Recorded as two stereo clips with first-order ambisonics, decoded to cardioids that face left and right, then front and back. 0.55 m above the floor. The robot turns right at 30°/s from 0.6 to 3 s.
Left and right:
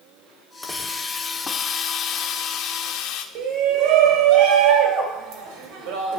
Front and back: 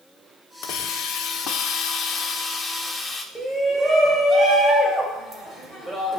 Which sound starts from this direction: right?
A shout, at 3.4 s.